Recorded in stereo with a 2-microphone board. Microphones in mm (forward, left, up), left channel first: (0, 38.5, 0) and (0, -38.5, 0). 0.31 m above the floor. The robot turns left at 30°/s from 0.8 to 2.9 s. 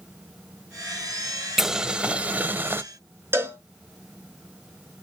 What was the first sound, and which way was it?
Boiling, 10° right.